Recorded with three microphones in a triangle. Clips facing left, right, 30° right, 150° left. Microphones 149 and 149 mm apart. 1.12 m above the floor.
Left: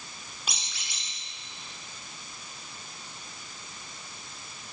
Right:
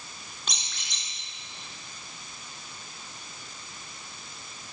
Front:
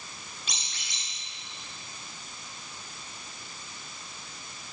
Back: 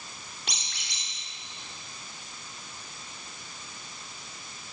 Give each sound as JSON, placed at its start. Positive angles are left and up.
{"t": 0.5, "sound": "a squeak", "azimuth_deg": 170, "distance_m": 2.5}